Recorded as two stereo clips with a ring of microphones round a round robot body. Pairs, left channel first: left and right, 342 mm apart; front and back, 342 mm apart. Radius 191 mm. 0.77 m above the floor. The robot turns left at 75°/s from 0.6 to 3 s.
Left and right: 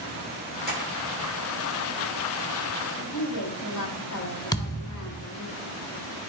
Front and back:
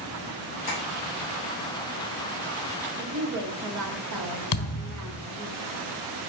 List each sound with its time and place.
0.7 s tapping: 25° right, 3.5 m; by 0.8 s 35° right, 3.5 m
3.0 s a woman speaking: 145° left, 1.6 m; by 5.5 s 140° left, 1.6 m
4.5 s a thud: 10° left, 1.2 m